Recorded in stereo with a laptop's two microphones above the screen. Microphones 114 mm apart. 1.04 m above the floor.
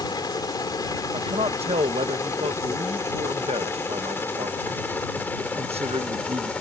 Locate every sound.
0.0 s a helicopter: 35° left (ahead or behind); by 6.6 s 10° left (ahead or behind)
1.1 s a man speaking: 55° right (ahead or behind)